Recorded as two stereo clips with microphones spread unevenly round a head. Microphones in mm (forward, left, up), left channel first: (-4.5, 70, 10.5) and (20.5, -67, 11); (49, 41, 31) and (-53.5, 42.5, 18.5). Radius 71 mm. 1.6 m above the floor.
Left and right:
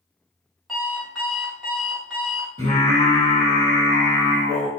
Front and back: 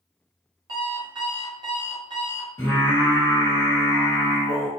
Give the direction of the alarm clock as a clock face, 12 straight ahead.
6 o'clock.